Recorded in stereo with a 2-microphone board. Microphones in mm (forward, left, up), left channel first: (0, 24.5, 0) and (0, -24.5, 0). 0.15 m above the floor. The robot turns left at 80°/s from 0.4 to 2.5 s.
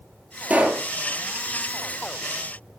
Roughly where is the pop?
Right.